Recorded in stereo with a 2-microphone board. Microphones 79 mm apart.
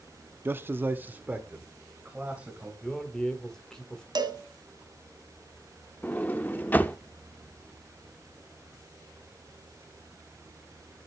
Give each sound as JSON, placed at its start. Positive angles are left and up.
{"t": 0.5, "sound": "a man speaking", "side_deg": -25, "distance_m": 0.6}
{"t": 2.8, "sound": "a man speaking", "side_deg": 5, "distance_m": 1.9}
{"t": 4.2, "sound": "a cowbell", "side_deg": -65, "distance_m": 1.6}
{"t": 6.0, "sound": "a sliding door", "side_deg": 25, "distance_m": 0.7}